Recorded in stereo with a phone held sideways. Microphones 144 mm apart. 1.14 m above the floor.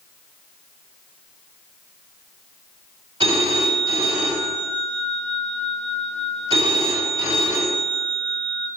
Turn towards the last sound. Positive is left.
turn(degrees=-35)  # may be behind; listen again after turning